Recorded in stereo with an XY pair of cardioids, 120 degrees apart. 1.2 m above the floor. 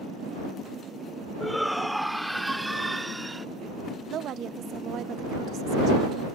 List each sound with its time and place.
1.4 s a shout: 5° left; by 3.5 s 15° right
4.1 s a woman speaking: 60° right